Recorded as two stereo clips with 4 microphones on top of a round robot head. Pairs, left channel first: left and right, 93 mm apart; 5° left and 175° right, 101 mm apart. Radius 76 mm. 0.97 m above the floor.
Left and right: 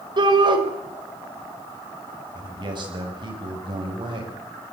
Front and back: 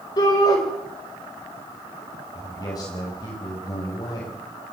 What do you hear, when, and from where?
0.2 s a shout: 50° right, 4.5 m
2.3 s a man speaking: 55° right, 6.5 m